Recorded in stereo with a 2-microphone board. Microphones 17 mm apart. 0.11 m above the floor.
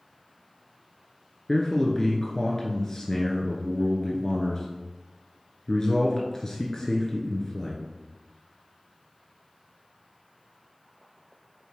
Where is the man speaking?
30° left (ahead or behind), 1.2 m.